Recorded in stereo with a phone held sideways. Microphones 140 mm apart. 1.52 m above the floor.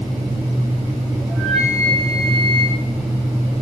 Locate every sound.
1.3 s a flute: centre (ahead or behind), 7.5 m